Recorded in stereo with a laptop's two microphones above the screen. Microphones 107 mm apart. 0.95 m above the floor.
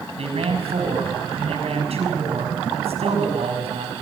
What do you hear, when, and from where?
0.2 s a man speaking: 70° right (ahead or behind), 6.5 m